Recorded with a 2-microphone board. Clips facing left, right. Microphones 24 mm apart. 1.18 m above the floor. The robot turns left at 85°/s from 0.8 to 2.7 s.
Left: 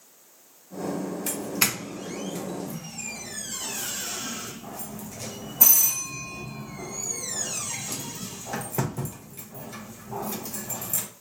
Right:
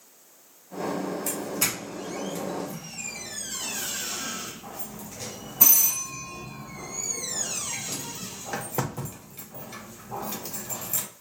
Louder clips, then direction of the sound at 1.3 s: Left 2 dB; 55° left (ahead or behind).